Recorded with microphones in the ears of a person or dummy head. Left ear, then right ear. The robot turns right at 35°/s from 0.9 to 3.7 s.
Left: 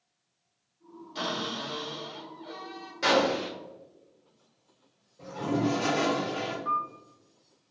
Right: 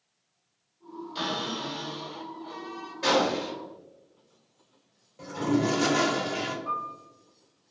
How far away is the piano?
About 1.5 m.